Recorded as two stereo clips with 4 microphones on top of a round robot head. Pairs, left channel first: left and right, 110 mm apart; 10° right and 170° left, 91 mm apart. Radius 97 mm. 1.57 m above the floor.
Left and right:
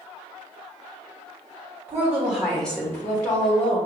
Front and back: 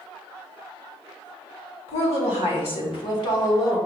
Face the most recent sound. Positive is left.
turn(degrees=40)